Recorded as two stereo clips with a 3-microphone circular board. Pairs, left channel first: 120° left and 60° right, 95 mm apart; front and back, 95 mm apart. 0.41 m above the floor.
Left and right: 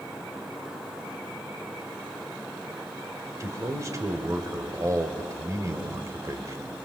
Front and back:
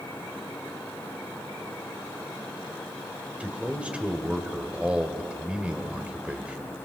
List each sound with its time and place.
3.4 s a man speaking: 105° right, 1.8 m